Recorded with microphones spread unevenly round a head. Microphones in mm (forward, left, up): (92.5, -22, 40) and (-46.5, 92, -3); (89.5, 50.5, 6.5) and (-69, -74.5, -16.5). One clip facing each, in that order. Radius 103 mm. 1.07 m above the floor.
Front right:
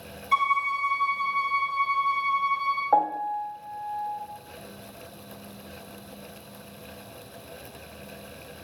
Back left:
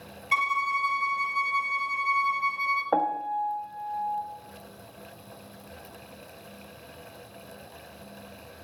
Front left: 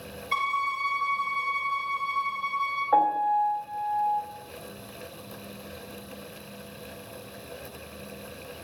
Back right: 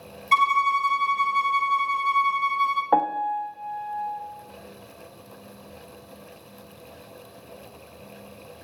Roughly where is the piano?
Behind right.